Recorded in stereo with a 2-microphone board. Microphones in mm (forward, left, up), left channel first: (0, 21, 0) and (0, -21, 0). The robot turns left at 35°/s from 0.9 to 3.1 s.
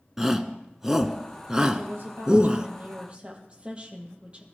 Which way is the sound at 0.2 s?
10° right (ahead or behind).